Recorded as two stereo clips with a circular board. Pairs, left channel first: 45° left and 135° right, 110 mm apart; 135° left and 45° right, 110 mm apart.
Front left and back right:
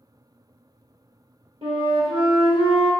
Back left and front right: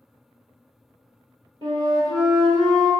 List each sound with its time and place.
1.6 s a flute: 95° right, 1.2 m